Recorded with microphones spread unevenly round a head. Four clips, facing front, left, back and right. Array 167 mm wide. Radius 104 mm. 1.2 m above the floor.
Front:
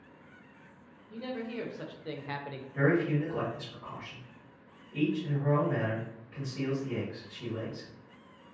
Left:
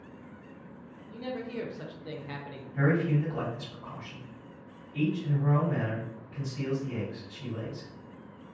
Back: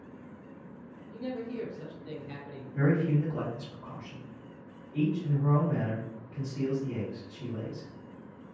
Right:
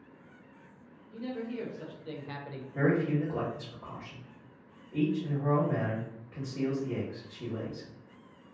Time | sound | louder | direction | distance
1.1 | a man speaking | left 1 dB, back 1 dB | 50° left | 1.2 m
2.8 | a man speaking | even, even | 80° right | 1.2 m